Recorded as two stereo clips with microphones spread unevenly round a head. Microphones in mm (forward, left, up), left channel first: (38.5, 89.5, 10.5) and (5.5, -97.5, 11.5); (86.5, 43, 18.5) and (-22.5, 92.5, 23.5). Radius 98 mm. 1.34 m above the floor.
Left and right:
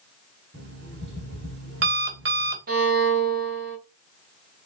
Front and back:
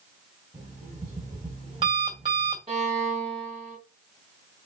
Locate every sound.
0.5 s an alarm clock: 140° right, 2.5 m
2.7 s a violin: 145° right, 2.5 m